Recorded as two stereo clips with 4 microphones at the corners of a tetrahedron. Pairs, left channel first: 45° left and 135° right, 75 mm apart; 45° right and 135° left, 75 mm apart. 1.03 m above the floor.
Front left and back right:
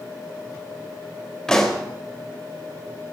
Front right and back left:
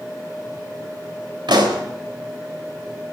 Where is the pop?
130° left, 3.5 m.